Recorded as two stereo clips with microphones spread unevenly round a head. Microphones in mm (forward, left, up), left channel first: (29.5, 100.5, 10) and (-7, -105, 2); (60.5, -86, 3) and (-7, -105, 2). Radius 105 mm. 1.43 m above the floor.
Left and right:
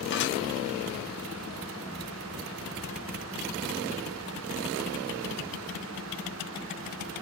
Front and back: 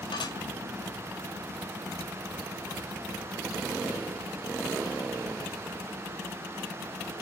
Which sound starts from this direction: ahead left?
Dishes clattering, at 0.1 s.